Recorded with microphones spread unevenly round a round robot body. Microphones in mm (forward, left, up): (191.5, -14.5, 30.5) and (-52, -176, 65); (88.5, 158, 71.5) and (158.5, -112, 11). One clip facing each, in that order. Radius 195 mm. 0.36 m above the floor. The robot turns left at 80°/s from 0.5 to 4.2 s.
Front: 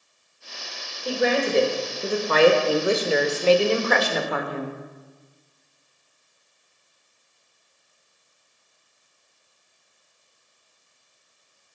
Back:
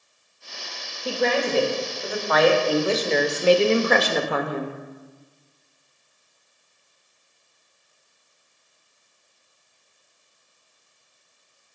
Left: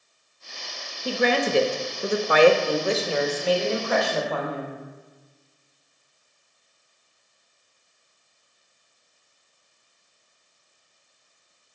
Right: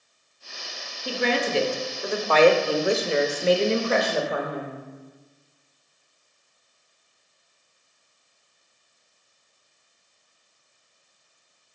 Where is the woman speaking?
125° left, 1.0 m; by 4.8 s 125° right, 1.0 m.